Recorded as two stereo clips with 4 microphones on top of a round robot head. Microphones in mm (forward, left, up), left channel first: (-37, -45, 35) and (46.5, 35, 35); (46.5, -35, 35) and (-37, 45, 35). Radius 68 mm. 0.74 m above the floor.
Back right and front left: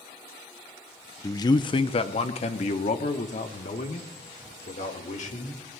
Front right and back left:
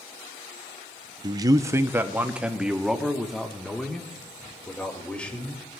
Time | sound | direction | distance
1.2 | a man speaking | 175° left | 0.8 m